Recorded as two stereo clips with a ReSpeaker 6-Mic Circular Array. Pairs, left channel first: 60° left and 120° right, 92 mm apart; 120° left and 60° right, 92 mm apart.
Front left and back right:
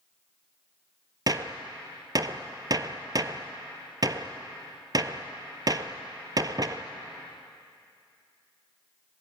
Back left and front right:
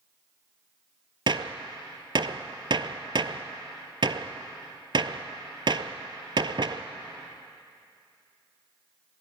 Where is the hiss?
No hiss in this recording.